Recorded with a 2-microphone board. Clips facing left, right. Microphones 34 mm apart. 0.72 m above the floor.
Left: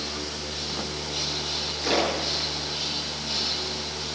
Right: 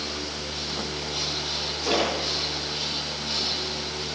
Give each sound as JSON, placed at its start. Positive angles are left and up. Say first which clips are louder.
{"t": 1.8, "sound": "a splash", "louder": "even", "side_deg": 35, "distance_m": 7.5}